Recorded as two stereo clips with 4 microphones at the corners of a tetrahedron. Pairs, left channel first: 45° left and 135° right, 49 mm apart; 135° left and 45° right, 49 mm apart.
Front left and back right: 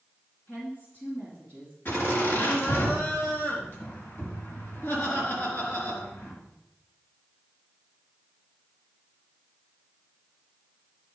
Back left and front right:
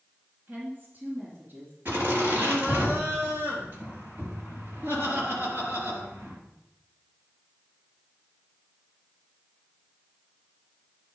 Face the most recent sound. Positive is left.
turn(degrees=0)